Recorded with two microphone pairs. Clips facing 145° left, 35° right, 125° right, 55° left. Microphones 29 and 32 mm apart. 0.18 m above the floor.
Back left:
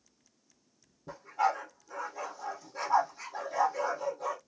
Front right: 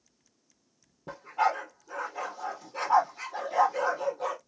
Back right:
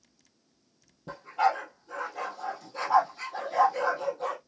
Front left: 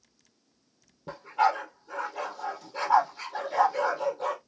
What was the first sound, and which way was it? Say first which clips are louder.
A dog barking: front right 2 dB, front left 1 dB; 15° right.